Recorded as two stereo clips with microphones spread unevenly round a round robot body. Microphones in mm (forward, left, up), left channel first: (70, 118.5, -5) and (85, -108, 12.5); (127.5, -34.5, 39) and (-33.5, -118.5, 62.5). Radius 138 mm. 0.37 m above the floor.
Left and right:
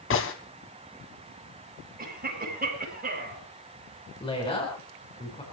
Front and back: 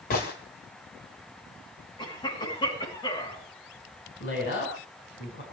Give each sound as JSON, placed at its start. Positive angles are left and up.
{"t": 0.1, "sound": "a gunshot", "azimuth_deg": 70, "distance_m": 1.7}
{"t": 2.0, "sound": "a cough", "azimuth_deg": -35, "distance_m": 7.5}
{"t": 4.2, "sound": "a woman speaking", "azimuth_deg": 30, "distance_m": 4.5}